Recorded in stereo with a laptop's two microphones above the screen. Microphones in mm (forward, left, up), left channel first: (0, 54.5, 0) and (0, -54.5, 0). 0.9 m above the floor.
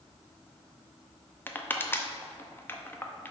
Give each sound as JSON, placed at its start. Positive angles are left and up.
{"t": 1.5, "sound": "crushing", "side_deg": 20, "distance_m": 0.5}